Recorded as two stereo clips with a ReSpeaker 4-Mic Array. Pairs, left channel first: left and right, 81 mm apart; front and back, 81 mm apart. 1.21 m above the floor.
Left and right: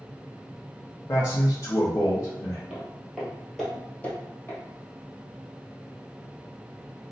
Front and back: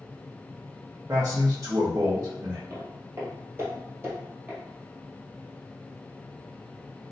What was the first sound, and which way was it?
A man speaking, 135° left.